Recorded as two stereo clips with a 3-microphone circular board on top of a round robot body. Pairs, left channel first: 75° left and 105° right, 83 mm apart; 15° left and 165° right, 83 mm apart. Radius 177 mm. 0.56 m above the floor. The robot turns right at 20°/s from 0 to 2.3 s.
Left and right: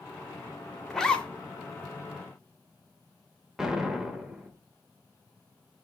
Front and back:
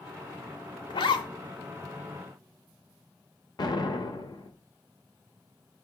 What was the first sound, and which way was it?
A zipper, 10° right.